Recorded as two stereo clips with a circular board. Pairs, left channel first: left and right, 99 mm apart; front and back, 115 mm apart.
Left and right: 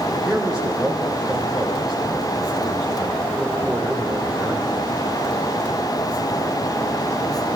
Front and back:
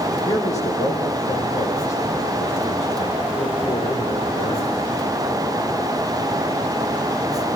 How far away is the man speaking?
About 7 m.